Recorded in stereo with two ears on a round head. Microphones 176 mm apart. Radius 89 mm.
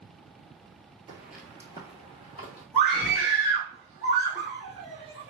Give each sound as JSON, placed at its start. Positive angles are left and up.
{"t": 1.1, "sound": "footsteps", "side_deg": -20, "distance_m": 0.8}
{"t": 2.7, "sound": "a scream", "side_deg": 5, "distance_m": 1.3}